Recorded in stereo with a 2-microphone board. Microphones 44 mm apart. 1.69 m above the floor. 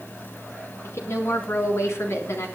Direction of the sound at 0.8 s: 85° left.